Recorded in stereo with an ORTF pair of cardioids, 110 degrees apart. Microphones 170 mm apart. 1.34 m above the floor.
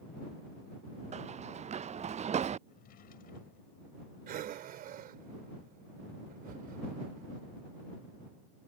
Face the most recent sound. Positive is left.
turn(degrees=-60)